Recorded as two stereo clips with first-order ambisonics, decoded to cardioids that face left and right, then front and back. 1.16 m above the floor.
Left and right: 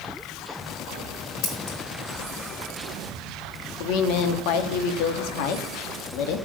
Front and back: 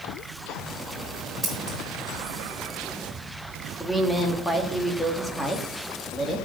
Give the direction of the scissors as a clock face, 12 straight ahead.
9 o'clock.